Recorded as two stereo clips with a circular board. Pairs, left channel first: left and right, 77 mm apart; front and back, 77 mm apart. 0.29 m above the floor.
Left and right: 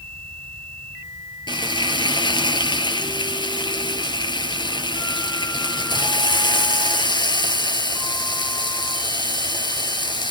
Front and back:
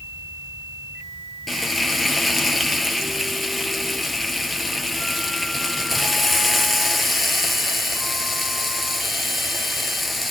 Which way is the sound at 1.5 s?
90° left.